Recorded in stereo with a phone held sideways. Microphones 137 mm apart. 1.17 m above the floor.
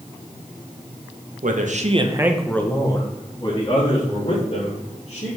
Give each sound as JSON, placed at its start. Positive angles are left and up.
{"t": 1.4, "sound": "a man speaking", "side_deg": -75, "distance_m": 1.4}